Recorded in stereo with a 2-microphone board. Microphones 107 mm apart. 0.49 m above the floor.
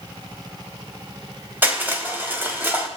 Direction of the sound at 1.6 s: 20° right (ahead or behind).